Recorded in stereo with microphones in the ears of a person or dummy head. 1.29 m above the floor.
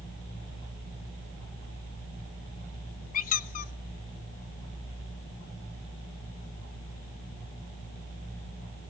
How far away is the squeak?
About 0.5 m.